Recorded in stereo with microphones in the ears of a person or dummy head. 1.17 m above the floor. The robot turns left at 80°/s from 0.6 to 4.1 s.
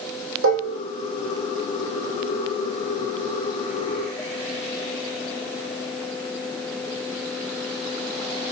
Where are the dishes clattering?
65° right (ahead or behind), 2.5 m; by 0.8 s 50° right (ahead or behind), 2.5 m.